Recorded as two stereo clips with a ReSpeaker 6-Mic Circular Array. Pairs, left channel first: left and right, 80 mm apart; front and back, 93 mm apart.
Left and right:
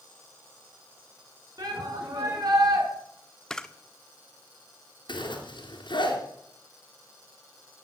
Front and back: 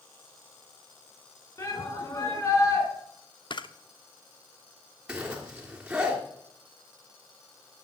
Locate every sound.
1.6 s a shout: 55° right, 6 m
3.5 s a camera shutter: 10° left, 0.9 m
5.1 s a zipper: 100° left, 3 m